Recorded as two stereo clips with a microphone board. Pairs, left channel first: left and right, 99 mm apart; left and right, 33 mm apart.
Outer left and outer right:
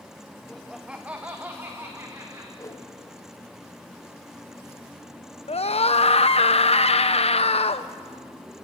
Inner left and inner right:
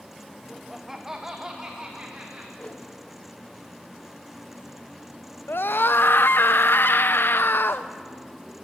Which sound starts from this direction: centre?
Laughter, at 0.5 s.